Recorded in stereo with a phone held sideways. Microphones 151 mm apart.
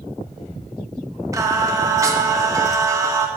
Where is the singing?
20° right (ahead or behind), 1.1 m.